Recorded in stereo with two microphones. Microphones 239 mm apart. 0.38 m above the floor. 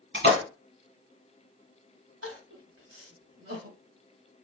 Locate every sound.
0.1 s a splash: 60° right (ahead or behind), 1.7 m
2.2 s crying: 70° right (ahead or behind), 1.2 m